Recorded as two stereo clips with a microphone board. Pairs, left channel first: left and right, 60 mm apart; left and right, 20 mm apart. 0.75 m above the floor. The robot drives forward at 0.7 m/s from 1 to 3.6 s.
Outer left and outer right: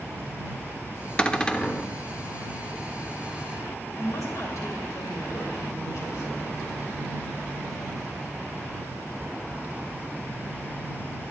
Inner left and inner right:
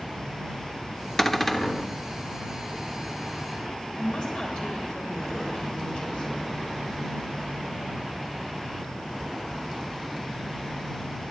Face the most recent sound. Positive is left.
turn(degrees=65)  # may be behind; listen again after turning